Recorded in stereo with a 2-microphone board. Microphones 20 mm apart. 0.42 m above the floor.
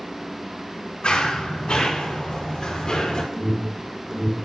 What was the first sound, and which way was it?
Running footsteps, 50° left (ahead or behind).